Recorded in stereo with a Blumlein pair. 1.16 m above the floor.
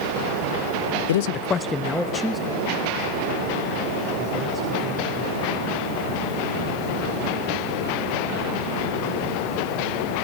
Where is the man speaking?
65° left, 0.5 m; by 5.4 s 15° right, 5 m.